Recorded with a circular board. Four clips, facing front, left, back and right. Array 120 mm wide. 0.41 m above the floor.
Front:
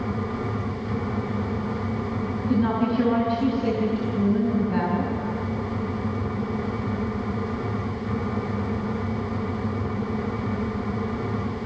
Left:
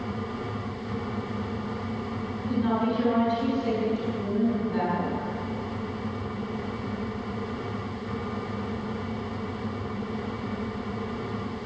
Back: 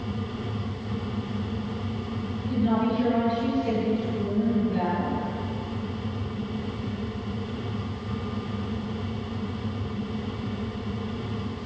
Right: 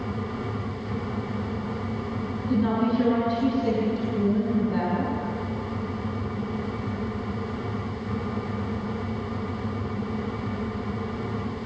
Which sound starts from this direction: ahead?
A woman speaking, at 2.5 s.